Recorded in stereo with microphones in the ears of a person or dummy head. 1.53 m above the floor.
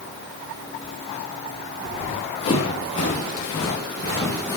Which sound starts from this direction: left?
Running footsteps, at 1.8 s.